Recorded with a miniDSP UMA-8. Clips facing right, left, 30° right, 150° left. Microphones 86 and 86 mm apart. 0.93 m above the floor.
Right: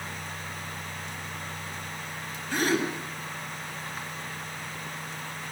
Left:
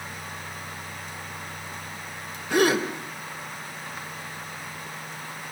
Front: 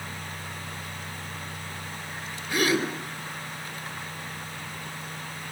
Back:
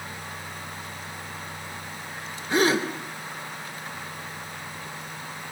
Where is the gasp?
90° left, 3.5 m.